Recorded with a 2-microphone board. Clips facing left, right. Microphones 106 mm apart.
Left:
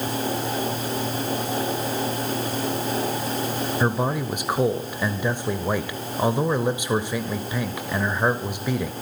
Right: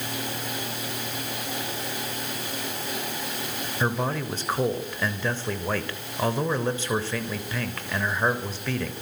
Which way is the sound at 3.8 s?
15° left (ahead or behind).